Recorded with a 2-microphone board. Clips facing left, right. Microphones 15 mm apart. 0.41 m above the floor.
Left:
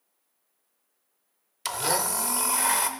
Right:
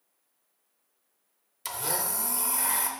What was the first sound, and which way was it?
A blender, 40° left (ahead or behind).